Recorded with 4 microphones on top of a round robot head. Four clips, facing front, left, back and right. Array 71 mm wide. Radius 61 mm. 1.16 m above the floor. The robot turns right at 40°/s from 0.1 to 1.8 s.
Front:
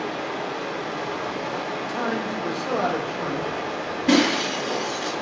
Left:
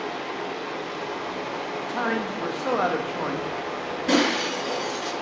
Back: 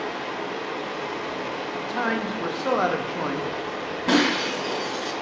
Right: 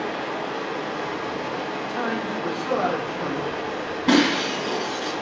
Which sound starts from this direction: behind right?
Breaking glass, at 4.1 s.